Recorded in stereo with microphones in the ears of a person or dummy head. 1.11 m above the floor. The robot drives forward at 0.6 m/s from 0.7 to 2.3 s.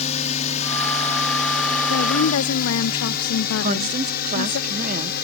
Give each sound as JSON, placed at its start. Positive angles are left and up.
{"t": 0.0, "sound": "a drone", "side_deg": 40}
{"t": 1.9, "sound": "a woman speaking", "side_deg": 70}
{"t": 3.6, "sound": "a woman speaking", "side_deg": -35}